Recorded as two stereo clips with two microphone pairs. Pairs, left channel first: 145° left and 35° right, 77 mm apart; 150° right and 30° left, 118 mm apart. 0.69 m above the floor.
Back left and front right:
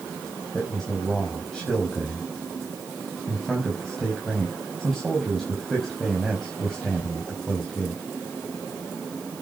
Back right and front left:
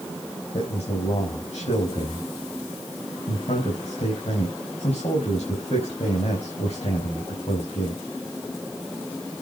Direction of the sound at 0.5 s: 130° right.